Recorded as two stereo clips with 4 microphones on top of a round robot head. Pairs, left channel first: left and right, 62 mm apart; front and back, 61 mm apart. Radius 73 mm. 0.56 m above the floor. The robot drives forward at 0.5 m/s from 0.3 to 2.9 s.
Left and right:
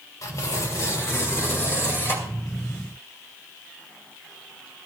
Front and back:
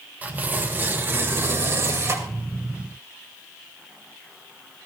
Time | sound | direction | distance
0.2 | tearing paper | 120° left | 1.7 m